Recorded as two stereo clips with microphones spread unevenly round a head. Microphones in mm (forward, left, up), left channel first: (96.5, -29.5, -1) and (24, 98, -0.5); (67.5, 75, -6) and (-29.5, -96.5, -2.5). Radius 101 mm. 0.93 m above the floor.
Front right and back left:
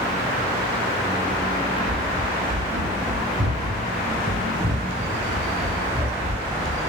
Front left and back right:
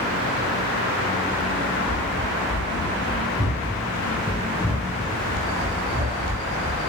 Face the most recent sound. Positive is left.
turn(degrees=-165)